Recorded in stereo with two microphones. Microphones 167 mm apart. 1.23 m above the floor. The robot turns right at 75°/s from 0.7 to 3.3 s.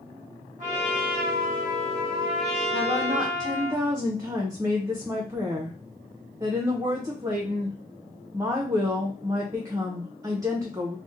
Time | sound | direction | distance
0.6 | a trumpet | 130° right | 1.2 m
2.7 | a woman speaking | 65° right | 0.5 m